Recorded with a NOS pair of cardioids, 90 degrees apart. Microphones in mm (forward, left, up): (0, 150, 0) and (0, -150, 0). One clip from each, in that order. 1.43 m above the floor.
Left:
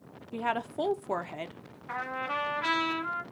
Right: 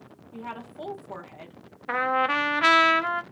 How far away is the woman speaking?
About 0.7 m.